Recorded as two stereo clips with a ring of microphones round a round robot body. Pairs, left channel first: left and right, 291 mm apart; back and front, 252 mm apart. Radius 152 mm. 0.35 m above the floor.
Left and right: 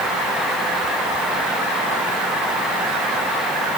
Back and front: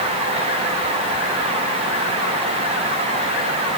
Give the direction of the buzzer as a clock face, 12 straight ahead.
I don't hear a buzzer.